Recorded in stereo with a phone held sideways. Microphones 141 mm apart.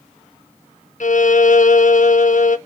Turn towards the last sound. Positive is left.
turn(degrees=60)  # may be behind; listen again after turning